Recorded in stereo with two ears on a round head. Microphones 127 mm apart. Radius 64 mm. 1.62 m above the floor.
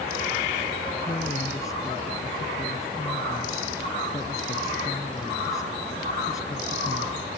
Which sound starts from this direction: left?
A woman speaking, at 1.1 s.